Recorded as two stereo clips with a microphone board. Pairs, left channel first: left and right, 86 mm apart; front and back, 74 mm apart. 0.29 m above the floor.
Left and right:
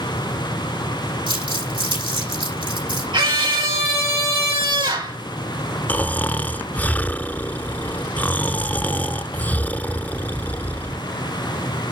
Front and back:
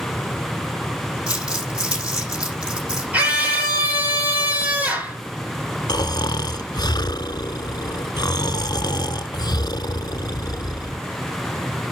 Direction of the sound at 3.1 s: 110° right.